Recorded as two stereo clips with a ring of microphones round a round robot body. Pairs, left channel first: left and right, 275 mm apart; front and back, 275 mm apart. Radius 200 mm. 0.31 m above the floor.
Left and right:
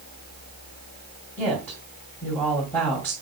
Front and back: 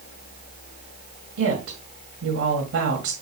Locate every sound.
1.4 s a woman speaking: 175° left, 2 m